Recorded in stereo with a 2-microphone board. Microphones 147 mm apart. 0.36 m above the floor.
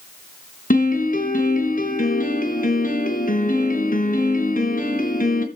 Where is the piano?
70° left (ahead or behind), 3 m.